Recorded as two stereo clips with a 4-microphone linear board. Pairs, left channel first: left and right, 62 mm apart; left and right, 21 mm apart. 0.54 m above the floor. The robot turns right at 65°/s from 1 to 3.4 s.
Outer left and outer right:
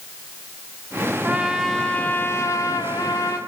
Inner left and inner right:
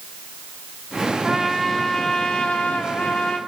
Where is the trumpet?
25° right, 2 m; by 3.4 s 115° left, 2 m.